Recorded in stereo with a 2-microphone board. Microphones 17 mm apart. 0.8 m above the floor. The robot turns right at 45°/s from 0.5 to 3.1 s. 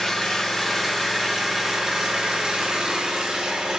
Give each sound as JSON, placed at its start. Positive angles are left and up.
{"t": 0.0, "sound": "an engine running", "azimuth_deg": 135, "distance_m": 6.5}